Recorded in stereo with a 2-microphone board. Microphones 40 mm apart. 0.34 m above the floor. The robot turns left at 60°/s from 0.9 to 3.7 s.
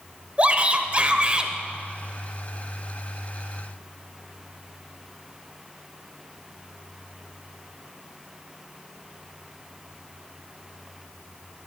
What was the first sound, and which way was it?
A shout, 95° right.